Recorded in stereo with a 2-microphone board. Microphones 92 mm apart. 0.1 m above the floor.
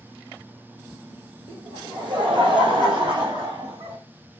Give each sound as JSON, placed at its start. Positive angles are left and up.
{"t": 1.5, "sound": "laughter", "side_deg": -60, "distance_m": 6.0}